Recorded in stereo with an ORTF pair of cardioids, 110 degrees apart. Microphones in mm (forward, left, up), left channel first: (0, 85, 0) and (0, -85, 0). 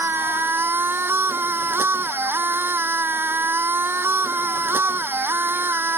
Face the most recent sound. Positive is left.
turn(degrees=-10)